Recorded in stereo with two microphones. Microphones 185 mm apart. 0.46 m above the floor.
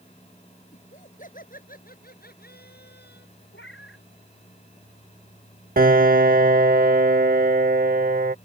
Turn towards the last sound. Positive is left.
turn(degrees=-50)  # may be behind; listen again after turning